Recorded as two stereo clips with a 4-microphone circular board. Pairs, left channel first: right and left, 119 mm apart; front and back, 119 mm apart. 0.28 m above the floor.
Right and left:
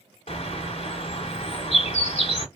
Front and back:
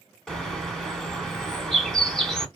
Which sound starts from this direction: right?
A bird, at 0.3 s.